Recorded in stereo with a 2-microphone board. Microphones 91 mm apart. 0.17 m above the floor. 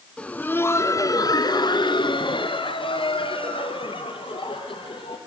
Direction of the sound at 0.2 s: 10° left (ahead or behind).